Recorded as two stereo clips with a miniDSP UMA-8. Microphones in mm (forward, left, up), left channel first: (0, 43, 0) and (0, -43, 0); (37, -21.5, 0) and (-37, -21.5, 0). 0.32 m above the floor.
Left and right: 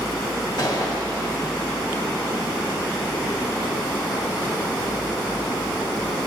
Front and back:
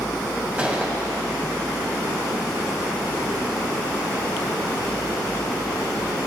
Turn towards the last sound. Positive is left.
turn(degrees=115)